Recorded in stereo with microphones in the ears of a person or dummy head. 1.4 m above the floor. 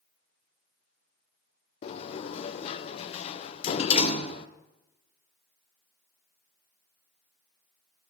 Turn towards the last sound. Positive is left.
turn(degrees=40)  # may be behind; listen again after turning